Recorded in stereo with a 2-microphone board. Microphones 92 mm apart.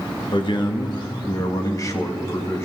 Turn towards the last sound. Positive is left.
turn(degrees=30)  # may be behind; listen again after turning